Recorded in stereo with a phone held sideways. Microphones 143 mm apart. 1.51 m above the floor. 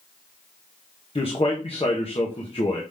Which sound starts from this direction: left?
A man speaking, at 1.1 s.